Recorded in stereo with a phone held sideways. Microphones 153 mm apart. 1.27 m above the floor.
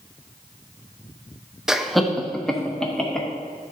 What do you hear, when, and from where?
1.7 s laughter: 5° right (ahead or behind), 0.6 m; by 3.3 s 5° left (ahead or behind), 2 m